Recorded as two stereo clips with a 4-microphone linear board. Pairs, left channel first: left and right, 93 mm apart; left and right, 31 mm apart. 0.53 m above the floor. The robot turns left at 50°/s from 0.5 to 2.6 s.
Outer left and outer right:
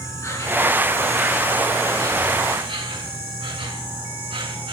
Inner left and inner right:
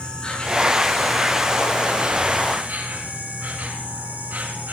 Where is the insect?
35° left, 3.5 m; by 4.7 s 70° right, 3.5 m.